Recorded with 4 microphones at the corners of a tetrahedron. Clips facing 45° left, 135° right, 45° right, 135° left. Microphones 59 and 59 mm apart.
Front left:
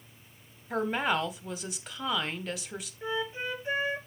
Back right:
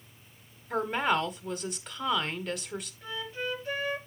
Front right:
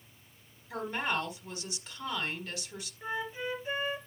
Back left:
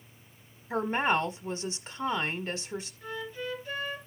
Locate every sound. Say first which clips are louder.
0.7 s a woman speaking: back right 1 dB, back left 6 dB; 130° left, 1.2 m
3.0 s a flute: front left 5 dB, front right 6 dB; 5° left, 1.5 m